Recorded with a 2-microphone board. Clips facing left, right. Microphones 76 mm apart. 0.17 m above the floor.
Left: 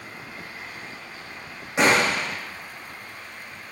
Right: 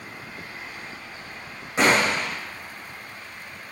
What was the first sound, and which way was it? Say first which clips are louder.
A gunshot: even; 5° left (ahead or behind).